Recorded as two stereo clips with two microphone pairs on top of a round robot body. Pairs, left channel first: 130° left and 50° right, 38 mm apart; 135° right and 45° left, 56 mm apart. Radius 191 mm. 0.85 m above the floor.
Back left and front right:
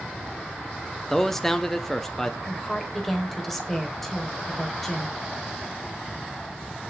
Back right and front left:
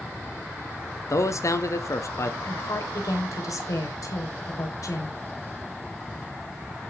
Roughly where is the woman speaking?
Behind right.